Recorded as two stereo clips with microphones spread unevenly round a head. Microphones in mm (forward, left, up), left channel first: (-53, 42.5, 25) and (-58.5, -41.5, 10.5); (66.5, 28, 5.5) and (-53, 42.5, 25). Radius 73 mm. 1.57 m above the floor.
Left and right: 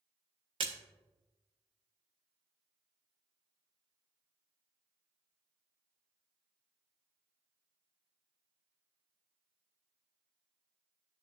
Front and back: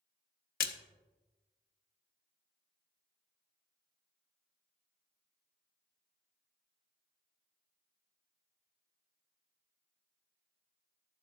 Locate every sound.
0.6 s a splash: 35° right, 0.5 m